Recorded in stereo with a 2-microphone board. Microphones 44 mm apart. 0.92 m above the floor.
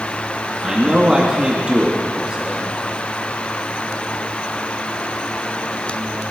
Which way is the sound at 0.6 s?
15° right (ahead or behind).